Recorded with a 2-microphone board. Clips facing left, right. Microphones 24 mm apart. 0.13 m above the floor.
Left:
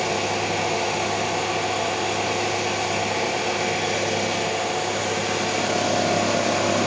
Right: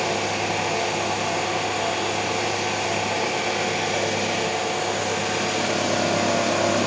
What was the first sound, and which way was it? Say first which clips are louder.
An engine running: even; 25° left (ahead or behind).